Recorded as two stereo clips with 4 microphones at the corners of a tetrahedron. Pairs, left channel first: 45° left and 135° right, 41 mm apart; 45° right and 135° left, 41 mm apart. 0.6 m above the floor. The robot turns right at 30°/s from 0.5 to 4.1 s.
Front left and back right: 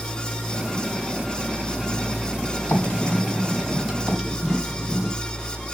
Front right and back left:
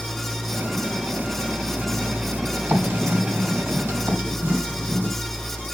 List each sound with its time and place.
2.7 s writing: 95° left, 3 m; by 5.2 s 140° left, 3 m